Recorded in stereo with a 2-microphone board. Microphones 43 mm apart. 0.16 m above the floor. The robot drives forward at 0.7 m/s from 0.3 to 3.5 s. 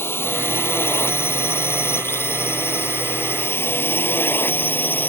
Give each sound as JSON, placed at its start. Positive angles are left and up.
{"t": 0.0, "sound": "a drone", "side_deg": 70}